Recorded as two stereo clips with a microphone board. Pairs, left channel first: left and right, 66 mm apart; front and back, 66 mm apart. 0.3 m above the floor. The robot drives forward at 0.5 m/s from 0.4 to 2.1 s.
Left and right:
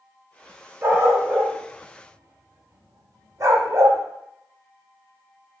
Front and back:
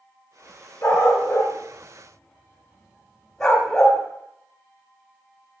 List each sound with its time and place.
0.8 s a dog barking: 40° right, 1.0 m; by 4.0 s 85° right, 0.7 m